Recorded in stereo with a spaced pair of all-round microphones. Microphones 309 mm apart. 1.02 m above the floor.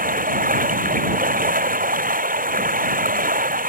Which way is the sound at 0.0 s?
25° right (ahead or behind).